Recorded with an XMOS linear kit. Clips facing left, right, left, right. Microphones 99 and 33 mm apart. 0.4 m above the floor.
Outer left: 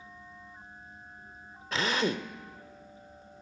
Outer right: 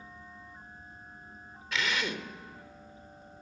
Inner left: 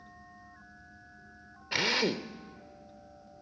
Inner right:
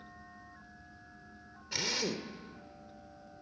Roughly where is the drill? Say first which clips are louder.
Outer left 4 dB, inner left 6 dB; left.